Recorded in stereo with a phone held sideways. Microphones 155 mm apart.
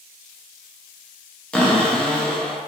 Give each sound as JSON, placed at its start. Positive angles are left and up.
{"t": 1.5, "sound": "a cupboard door", "side_deg": 5, "distance_m": 0.6}